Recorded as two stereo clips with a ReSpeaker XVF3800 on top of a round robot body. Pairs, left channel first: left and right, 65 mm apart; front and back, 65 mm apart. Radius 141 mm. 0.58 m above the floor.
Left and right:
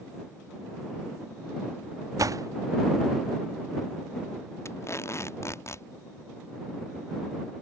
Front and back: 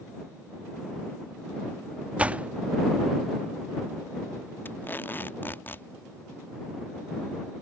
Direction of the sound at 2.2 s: 110° right.